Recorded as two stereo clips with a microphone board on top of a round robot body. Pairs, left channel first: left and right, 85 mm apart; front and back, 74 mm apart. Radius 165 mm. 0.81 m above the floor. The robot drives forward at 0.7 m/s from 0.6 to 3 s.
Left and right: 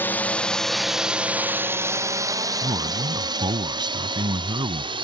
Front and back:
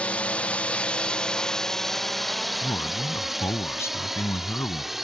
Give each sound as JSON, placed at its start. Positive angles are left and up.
{"t": 0.0, "sound": "a drone", "azimuth_deg": 55}
{"t": 2.6, "sound": "a man speaking", "azimuth_deg": -50}